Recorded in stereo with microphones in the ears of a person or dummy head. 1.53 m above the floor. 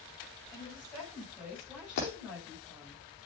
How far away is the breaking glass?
About 4 m.